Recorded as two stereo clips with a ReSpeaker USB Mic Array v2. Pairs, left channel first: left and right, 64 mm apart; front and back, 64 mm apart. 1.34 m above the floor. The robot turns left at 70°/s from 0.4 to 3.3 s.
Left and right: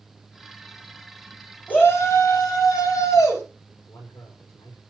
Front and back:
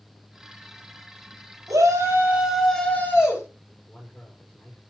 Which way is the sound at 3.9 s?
50° left.